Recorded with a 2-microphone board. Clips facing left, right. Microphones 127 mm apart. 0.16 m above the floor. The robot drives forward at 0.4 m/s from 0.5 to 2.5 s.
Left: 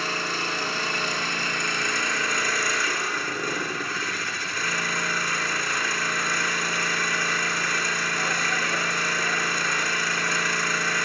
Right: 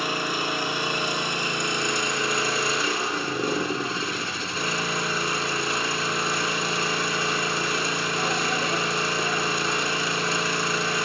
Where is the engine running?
15° right (ahead or behind), 2.5 m; by 11.1 s 25° right (ahead or behind), 1.8 m.